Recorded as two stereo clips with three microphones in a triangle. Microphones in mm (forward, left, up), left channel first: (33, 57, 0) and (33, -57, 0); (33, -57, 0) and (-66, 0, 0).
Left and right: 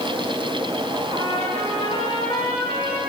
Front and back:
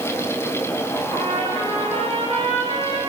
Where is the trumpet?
120° left, 7 m.